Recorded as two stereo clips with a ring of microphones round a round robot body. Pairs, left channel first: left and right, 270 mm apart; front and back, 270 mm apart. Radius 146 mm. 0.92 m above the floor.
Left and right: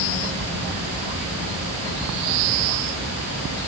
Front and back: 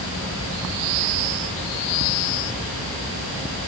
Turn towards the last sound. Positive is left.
No sound to turn to.